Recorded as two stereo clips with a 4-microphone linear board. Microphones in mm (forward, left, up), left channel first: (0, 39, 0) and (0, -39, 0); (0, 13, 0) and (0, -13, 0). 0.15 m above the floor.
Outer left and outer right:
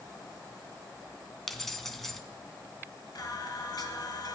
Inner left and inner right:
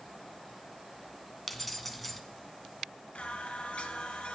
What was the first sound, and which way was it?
Keys jangling, 5° left (ahead or behind).